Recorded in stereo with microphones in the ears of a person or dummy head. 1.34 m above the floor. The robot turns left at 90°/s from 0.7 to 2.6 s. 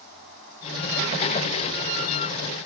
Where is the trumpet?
I don't hear a trumpet.